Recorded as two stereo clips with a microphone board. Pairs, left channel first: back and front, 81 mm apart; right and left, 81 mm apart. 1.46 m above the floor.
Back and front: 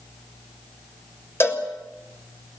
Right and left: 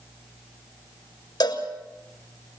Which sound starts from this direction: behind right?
A cowbell, at 1.4 s.